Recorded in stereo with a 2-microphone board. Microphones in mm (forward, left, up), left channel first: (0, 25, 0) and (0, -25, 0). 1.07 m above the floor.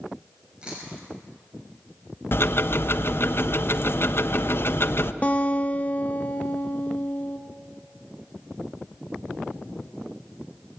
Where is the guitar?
30° left (ahead or behind), 0.9 m.